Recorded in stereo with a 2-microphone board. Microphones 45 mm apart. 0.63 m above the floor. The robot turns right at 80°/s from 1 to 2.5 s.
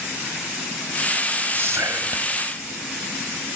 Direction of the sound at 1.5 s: 135° right.